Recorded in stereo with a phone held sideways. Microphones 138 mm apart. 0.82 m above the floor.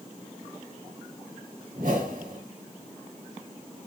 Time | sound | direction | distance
1.8 | a whoosh | 75° right (ahead or behind) | 3 m